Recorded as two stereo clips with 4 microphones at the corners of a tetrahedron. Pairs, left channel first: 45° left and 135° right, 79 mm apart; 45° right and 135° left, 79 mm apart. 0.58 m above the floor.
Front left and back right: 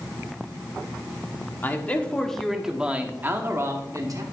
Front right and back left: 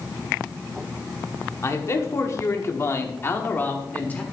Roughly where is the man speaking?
Ahead.